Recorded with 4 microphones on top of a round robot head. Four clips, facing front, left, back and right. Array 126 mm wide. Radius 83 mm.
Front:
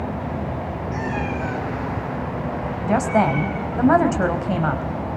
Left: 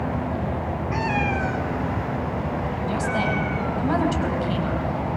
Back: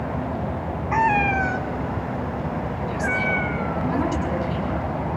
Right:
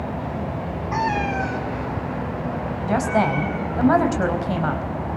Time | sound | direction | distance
0.9 | a cat meowing | 160° right | 2 m
2.9 | a woman speaking | 30° right | 4 m